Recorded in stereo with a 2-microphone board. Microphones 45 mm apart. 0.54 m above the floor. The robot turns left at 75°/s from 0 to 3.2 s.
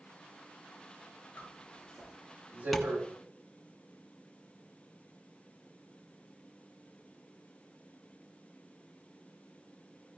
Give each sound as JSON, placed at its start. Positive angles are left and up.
{"t": 1.4, "sound": "a zipper", "side_deg": 45, "distance_m": 5.0}
{"t": 2.7, "sound": "tapping", "side_deg": 0, "distance_m": 1.4}